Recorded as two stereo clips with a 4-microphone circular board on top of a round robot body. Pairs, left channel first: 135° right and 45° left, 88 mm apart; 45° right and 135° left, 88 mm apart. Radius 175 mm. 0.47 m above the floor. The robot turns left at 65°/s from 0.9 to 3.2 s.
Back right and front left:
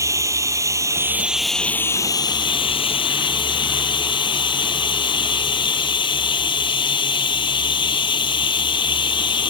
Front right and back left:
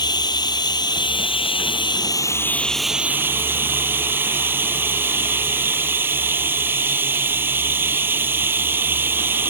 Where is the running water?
10° right; by 9.5 s 160° right.